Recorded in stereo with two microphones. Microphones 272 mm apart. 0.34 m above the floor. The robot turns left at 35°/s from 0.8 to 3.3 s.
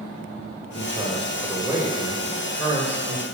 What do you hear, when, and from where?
0.7 s a man speaking: 20° right (ahead or behind), 1.1 m; by 3.2 s 10° left (ahead or behind), 1.1 m